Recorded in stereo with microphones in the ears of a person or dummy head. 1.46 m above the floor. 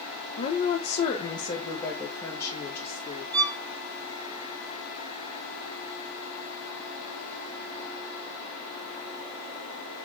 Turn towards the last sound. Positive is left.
turn(degrees=10)  # may be behind; listen again after turning